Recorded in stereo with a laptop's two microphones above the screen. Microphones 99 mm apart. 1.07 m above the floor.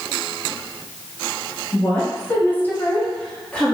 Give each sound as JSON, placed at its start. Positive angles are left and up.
{"t": 1.7, "sound": "a woman speaking", "side_deg": 20, "distance_m": 0.7}